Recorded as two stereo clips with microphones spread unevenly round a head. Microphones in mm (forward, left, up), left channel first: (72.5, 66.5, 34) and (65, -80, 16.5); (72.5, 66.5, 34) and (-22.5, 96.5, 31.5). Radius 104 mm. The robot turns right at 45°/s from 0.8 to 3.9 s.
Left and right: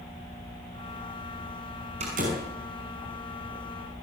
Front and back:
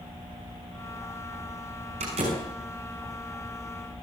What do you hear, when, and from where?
2.0 s a door slam: 155° right, 6.5 m; by 2.4 s 135° right, 6.5 m